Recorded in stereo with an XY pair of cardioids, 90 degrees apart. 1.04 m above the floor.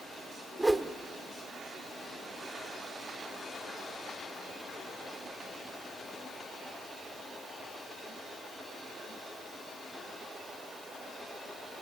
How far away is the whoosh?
About 1.4 m.